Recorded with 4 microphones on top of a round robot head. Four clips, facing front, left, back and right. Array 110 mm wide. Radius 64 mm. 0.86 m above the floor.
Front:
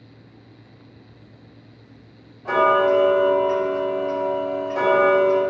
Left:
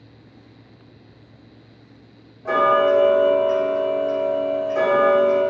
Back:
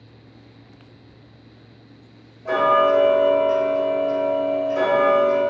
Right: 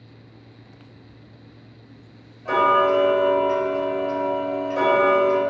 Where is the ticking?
55° left, 1.7 m.